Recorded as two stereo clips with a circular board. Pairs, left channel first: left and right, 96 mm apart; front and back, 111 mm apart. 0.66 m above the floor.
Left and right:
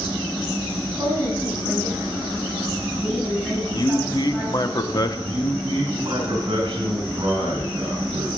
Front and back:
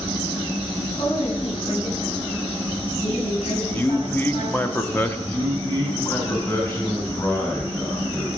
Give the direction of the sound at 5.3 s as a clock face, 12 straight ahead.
2 o'clock.